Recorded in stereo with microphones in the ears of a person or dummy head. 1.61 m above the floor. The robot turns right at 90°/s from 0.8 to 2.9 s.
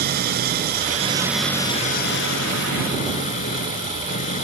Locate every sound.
0.0 s an engine running: 55° right; by 4.5 s 135° left